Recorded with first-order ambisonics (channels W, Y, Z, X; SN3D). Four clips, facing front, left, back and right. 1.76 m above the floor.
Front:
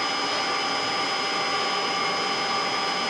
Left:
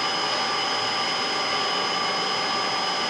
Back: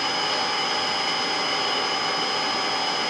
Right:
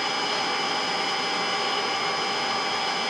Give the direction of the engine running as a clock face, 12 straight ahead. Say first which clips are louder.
Left 1 dB, back 1 dB; 7 o'clock.